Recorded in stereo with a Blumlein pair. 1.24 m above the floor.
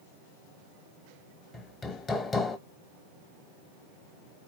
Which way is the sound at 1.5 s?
15° left.